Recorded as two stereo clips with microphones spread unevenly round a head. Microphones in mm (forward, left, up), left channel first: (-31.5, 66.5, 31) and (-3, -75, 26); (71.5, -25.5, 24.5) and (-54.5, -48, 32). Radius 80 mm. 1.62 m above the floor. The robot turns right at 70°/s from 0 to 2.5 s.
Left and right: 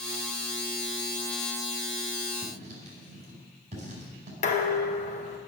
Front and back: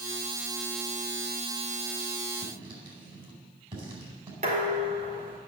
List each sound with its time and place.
2.4 s writing: 130° right, 4.5 m; by 4.3 s 120° right, 4.5 m
4.4 s dishes clattering: 140° left, 1.4 m